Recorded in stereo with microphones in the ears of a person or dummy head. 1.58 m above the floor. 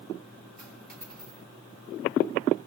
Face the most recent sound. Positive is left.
turn(degrees=-5)  # may be behind; listen again after turning